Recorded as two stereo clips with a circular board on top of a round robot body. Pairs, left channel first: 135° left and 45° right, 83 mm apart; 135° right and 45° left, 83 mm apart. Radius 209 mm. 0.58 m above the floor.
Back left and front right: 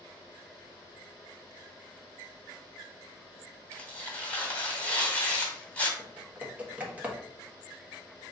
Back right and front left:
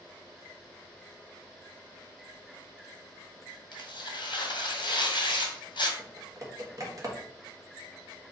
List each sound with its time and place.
3.7 s tearing paper: 155° right, 2 m
6.0 s typing on a keyboard: 20° left, 1.6 m